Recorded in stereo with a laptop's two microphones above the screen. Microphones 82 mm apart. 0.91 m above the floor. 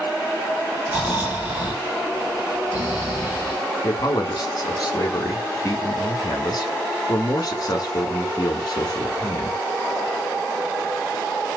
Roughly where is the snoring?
Centre.